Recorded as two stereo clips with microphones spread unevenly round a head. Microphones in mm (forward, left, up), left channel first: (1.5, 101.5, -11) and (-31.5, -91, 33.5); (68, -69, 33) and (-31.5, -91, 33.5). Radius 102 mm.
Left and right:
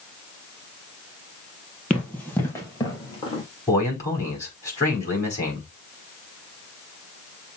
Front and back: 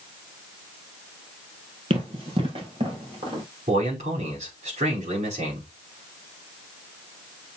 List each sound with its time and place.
1.9 s running footsteps: 175° left, 2.5 m; by 3.4 s 150° left, 2.5 m
3.7 s a man speaking: 155° left, 4.5 m